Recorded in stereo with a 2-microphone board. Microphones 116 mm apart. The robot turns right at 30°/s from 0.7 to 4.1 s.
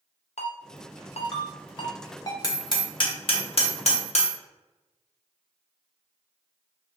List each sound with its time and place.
0.4 s a ringtone: 70° left (ahead or behind), 0.5 m; by 2.3 s 30° left (ahead or behind), 0.5 m
2.4 s hammering: 30° left (ahead or behind), 0.7 m; by 4.3 s 65° left (ahead or behind), 0.7 m